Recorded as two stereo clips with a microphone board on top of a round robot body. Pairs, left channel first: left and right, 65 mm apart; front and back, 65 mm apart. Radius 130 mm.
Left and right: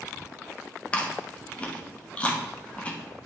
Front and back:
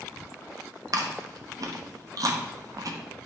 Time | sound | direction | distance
0.9 | chewing | 160° left | 1.0 m